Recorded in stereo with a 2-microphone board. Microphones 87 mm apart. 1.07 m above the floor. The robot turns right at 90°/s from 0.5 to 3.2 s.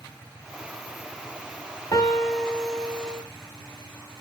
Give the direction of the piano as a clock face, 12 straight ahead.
7 o'clock.